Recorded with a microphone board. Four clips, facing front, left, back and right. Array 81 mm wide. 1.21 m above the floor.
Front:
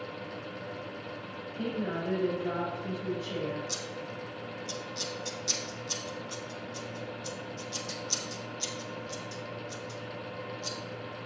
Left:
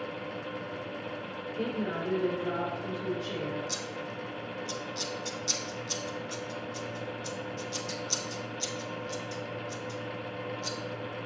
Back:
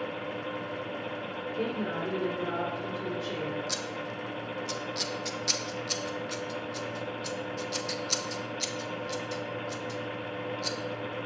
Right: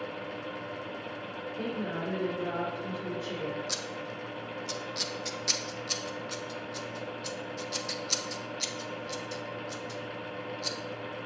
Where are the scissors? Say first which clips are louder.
Even, back 3 dB; 135° right, 0.7 m.